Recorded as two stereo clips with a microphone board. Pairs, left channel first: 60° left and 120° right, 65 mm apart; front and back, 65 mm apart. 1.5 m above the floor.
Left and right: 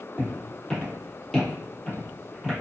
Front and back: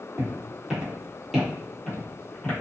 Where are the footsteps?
125° left, 1.7 m; by 2.5 s 10° right, 1.5 m.